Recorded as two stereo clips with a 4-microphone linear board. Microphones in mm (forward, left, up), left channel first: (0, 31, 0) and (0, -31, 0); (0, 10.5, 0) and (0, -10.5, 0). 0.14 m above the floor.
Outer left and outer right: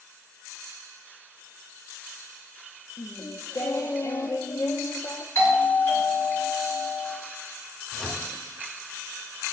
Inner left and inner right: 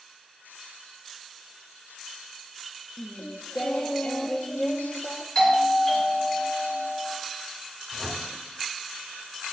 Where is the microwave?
5° right (ahead or behind), 1.2 m.